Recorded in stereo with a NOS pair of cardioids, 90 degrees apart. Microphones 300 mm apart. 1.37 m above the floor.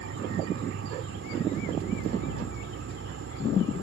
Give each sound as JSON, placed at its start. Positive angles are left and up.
{"t": 0.0, "sound": "an insect", "azimuth_deg": -50}